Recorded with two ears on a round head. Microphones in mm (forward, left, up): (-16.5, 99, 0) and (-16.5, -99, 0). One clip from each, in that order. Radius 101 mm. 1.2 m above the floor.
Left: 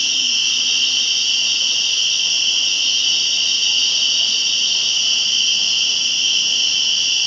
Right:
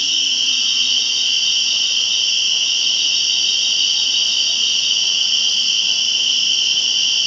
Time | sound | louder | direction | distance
0.0 | an insect | even | 30° right (ahead or behind) | 1.2 m